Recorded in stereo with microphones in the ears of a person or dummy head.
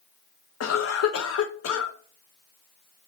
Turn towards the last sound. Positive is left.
turn(degrees=65)  # may be behind; listen again after turning